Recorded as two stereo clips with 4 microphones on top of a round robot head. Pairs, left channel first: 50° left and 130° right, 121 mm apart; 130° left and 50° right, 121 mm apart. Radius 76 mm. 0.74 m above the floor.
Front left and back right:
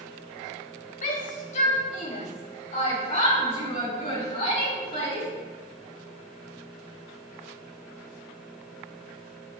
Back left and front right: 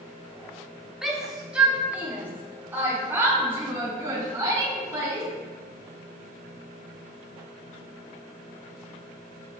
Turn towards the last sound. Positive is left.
turn(degrees=15)